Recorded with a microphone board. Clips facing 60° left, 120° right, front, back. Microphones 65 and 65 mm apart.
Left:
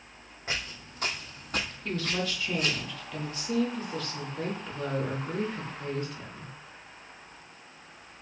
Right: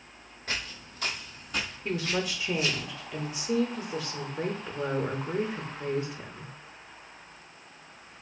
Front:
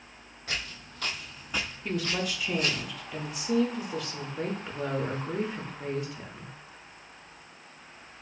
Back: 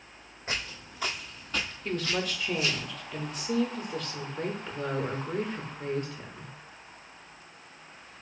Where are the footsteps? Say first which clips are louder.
Even, back 1 dB; 125° left, 1.2 m; by 2.9 s 25° left, 1.4 m.